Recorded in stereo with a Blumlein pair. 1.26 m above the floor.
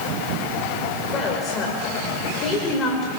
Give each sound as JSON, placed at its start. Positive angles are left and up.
{"t": 1.1, "sound": "a woman speaking", "azimuth_deg": 30, "distance_m": 5.0}